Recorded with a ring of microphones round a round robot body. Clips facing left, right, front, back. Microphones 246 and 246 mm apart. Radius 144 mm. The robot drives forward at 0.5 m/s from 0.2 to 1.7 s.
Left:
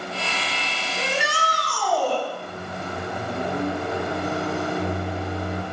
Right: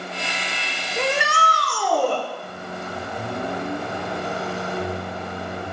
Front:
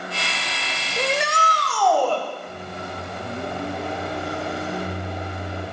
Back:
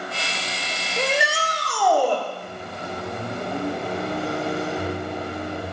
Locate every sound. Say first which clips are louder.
1.0 s a shout: right 4 dB, even; 90° right, 1.8 m; by 2.2 s 105° right, 1.8 m
2.4 s a microwave: even, even; 125° left, 4.5 m